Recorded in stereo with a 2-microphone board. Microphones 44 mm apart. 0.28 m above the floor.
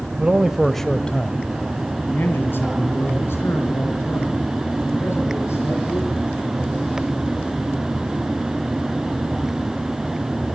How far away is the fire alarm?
No fire alarm in this recording.